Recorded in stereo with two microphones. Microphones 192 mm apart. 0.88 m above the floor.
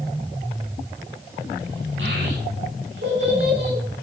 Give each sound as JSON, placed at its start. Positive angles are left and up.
{"t": 2.0, "sound": "a child speaking", "side_deg": -85, "distance_m": 5.5}